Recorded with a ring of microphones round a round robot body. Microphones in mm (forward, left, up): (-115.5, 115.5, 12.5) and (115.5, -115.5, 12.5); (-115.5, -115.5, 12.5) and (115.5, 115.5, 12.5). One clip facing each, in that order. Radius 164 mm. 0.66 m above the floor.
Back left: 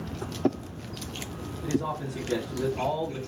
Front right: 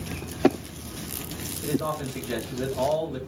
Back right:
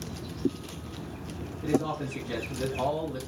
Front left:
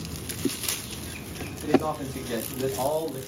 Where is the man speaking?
35° right, 3 m.